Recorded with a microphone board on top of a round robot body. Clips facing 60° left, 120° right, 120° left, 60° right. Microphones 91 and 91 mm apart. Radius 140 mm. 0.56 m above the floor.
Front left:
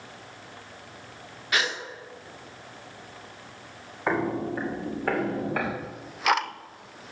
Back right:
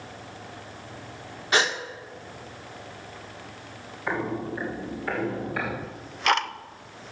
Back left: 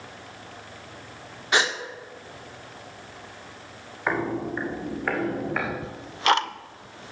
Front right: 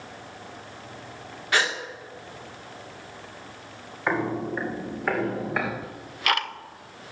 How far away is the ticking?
About 0.7 m.